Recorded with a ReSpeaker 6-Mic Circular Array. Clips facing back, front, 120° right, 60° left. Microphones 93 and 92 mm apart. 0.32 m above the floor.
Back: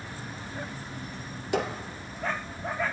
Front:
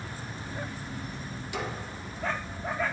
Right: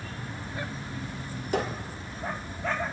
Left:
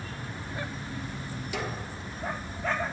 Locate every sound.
1.5 s a squeak: 160° right, 0.5 m